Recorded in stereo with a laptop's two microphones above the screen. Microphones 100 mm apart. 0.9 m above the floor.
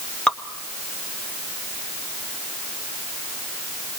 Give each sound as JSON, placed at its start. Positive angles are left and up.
{"t": 0.3, "sound": "dripping", "side_deg": 10, "distance_m": 1.0}